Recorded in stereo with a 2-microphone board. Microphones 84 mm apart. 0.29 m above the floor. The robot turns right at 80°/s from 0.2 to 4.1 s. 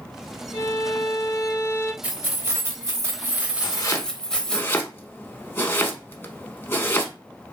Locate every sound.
0.5 s a violin: 35° left, 1.0 m; by 1.9 s 150° left, 1.0 m
2.0 s keys jangling: 150° right, 0.7 m; by 4.6 s 15° left, 0.7 m
3.6 s chopping: 65° left (ahead or behind), 0.5 m; by 7.1 s 25° left (ahead or behind), 0.5 m